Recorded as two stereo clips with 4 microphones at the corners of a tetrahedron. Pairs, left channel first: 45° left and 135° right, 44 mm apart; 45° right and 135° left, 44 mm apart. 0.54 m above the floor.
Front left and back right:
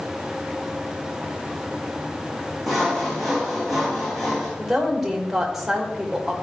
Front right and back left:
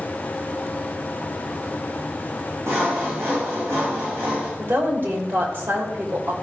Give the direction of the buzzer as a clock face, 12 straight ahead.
I don't hear a buzzer.